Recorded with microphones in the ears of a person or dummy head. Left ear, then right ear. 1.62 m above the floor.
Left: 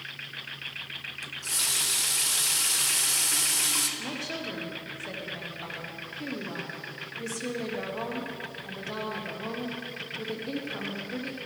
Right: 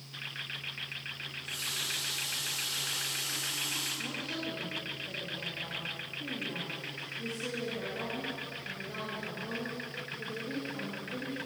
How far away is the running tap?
About 1.0 m.